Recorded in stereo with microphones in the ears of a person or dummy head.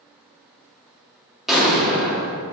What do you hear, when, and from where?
1.5 s an explosion: centre (ahead or behind), 1.6 m